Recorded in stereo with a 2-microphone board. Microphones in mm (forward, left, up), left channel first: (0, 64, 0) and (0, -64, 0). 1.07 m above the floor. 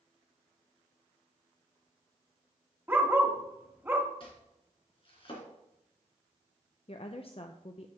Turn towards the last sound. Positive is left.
turn(degrees=50)  # may be behind; listen again after turning